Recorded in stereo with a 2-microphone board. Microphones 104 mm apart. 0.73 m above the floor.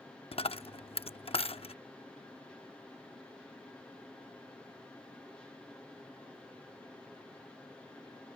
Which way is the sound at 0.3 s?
65° left (ahead or behind).